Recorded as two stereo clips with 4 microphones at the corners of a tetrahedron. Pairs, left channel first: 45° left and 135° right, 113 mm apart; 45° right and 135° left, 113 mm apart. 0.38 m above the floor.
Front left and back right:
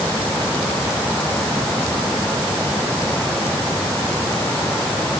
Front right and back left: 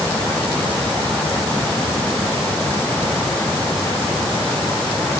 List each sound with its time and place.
Only background noise.